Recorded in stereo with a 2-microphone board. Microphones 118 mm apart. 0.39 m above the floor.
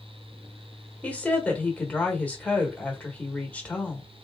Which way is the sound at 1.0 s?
10° left (ahead or behind).